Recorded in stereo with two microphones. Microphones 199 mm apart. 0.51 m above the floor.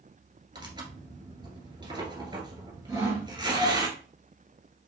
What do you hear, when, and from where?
0.6 s tearing paper: 25° right (ahead or behind), 1.6 m
2.9 s sawing: 15° right (ahead or behind), 3.5 m